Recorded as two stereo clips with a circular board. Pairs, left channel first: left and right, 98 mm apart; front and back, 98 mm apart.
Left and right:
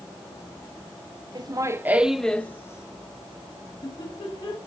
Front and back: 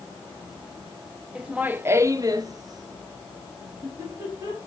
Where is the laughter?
100° right, 0.6 m; by 4.6 s 125° left, 1.5 m.